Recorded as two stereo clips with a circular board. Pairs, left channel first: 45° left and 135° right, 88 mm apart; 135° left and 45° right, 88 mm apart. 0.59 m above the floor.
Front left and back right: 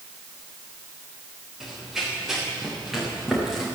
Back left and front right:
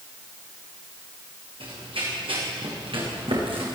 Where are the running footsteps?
50° right, 9.5 m.